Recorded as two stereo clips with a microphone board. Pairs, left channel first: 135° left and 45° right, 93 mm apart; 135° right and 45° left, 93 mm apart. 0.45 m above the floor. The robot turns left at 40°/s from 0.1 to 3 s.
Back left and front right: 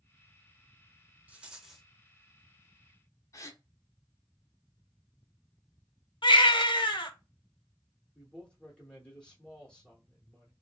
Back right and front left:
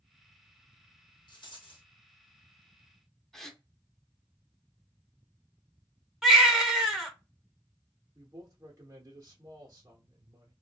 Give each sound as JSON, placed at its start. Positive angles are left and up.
{"t": 1.3, "sound": "a rattle", "azimuth_deg": -115, "distance_m": 0.7}
{"t": 3.3, "sound": "a gasp", "azimuth_deg": 140, "distance_m": 0.5}
{"t": 6.2, "sound": "a baby crying", "azimuth_deg": 130, "distance_m": 0.7}
{"t": 8.2, "sound": "a man speaking", "azimuth_deg": 60, "distance_m": 0.8}